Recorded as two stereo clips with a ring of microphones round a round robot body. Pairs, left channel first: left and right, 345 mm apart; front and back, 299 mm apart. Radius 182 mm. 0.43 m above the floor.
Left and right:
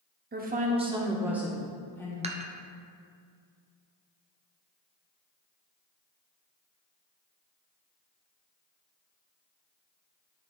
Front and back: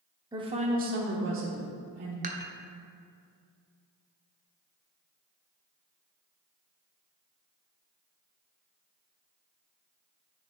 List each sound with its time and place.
0.3 s a woman speaking: 115° right, 1.0 m; by 2.1 s 170° left, 1.5 m
2.2 s dishes clattering: 145° right, 0.7 m